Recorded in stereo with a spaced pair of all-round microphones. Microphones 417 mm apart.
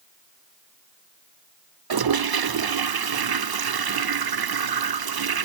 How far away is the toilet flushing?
About 0.5 m.